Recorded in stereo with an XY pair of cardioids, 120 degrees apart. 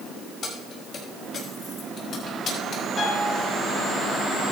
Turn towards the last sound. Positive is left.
turn(degrees=50)